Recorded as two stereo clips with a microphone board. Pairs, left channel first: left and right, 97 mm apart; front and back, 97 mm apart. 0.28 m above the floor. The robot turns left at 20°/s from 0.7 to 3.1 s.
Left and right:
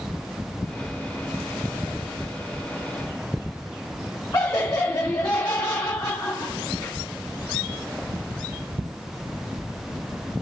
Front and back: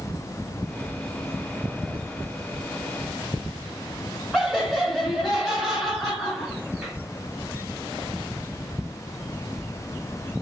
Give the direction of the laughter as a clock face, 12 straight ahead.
9 o'clock.